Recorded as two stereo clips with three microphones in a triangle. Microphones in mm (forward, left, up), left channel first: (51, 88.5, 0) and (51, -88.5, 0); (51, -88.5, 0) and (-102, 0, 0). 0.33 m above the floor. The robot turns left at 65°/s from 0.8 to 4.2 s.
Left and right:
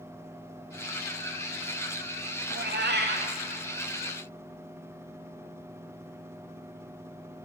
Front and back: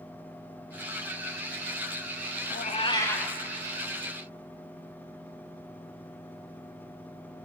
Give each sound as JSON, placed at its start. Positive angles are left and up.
{"t": 2.5, "sound": "a cat meowing", "azimuth_deg": -70, "distance_m": 0.7}